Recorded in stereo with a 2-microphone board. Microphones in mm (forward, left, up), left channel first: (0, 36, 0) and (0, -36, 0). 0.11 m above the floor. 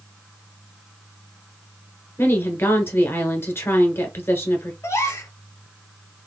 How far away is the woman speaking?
About 1.2 m.